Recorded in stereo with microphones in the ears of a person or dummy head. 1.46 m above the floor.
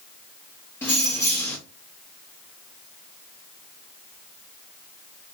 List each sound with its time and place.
0.8 s keys jangling: 10° left (ahead or behind), 1.8 m